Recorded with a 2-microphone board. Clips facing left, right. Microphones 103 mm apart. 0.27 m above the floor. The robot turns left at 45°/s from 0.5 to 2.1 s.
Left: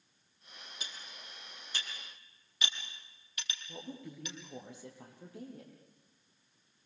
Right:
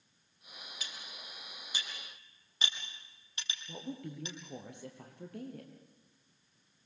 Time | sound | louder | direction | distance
0.8 | cutlery clinking | even | 30° left (ahead or behind) | 5 m
3.7 | a woman speaking | right 4 dB | 65° right (ahead or behind) | 6 m